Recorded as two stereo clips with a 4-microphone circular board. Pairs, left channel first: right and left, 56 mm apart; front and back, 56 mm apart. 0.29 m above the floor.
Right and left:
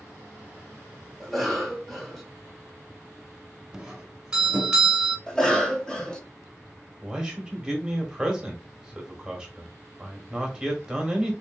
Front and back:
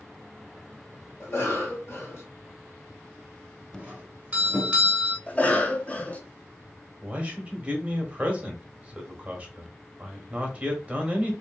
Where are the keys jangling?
No keys jangling in this recording.